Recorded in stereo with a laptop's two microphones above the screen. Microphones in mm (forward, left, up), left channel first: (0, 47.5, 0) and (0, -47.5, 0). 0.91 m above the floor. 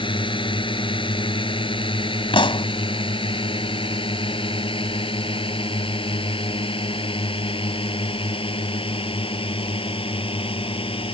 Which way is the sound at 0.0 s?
60° left (ahead or behind).